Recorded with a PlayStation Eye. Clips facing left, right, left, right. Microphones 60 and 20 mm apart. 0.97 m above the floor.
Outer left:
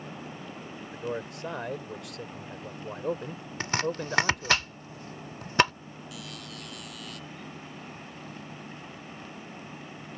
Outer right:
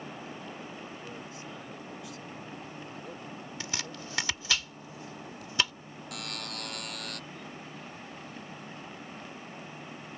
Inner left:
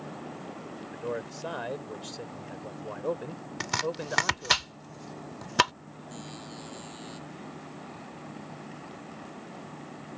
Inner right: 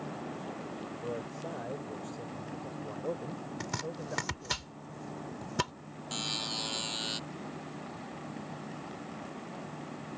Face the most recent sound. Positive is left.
turn(degrees=-60)  # may be behind; listen again after turning